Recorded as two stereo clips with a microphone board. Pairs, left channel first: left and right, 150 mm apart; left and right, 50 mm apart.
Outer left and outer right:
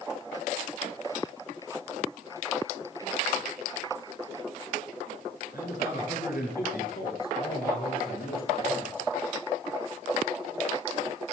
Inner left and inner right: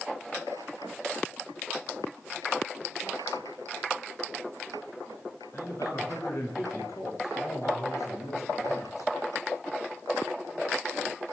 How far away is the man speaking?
About 10 m.